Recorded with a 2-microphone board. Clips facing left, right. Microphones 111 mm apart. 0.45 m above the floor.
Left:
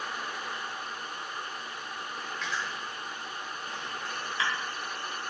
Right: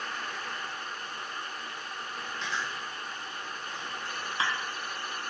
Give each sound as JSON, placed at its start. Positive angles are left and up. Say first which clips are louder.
{"t": 2.4, "sound": "chewing", "louder": "even", "side_deg": -30, "distance_m": 1.6}